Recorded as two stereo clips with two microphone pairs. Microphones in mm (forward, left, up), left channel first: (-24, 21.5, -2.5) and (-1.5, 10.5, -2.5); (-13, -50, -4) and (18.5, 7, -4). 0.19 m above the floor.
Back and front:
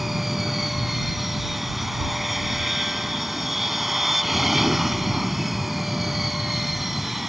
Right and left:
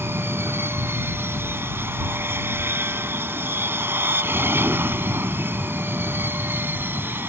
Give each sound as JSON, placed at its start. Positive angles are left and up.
{"t": 0.0, "sound": "an aircraft", "azimuth_deg": 55}